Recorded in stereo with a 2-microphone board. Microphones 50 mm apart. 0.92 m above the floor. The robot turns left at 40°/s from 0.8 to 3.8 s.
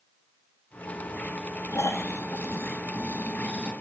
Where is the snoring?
105° left, 1.2 m; by 3.7 s 25° left, 1.2 m.